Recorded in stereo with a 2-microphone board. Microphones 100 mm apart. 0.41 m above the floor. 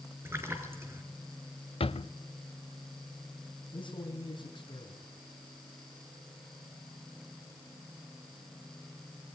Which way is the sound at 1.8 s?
75° left (ahead or behind).